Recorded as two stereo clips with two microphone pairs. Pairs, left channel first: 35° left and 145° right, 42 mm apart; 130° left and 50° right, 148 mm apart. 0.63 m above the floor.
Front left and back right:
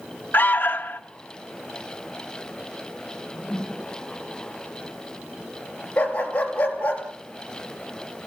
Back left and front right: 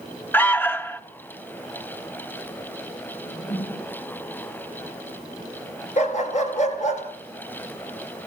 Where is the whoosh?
120° left, 8.5 m.